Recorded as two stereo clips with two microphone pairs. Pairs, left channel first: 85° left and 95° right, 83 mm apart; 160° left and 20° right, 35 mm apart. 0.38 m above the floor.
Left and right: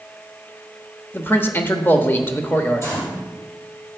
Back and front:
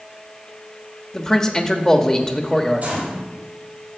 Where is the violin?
No violin in this recording.